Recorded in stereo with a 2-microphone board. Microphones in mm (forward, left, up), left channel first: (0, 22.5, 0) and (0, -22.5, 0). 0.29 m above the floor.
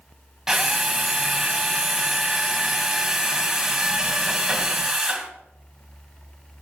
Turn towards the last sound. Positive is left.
turn(degrees=-10)  # may be behind; listen again after turning